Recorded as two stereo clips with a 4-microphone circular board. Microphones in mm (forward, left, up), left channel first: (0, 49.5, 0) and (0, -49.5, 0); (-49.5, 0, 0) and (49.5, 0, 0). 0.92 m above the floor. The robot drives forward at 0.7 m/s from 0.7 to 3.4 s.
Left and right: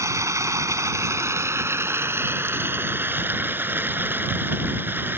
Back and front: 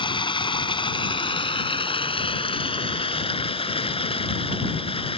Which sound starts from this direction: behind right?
Running water, at 0.0 s.